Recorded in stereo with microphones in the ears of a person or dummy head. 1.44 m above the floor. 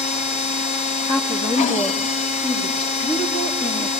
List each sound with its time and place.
0.0 s a machine running: 40° left (ahead or behind), 0.9 m
1.1 s a woman speaking: 25° left (ahead or behind), 2.5 m